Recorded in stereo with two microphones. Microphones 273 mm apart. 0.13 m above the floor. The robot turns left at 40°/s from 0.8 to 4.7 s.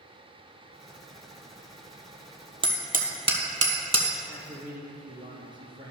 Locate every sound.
2.6 s hammering: 20° right (ahead or behind), 1.2 m; by 4.1 s 70° right (ahead or behind), 1.2 m
4.3 s a man speaking: 15° right (ahead or behind), 2.5 m; by 5.9 s 30° right (ahead or behind), 2.5 m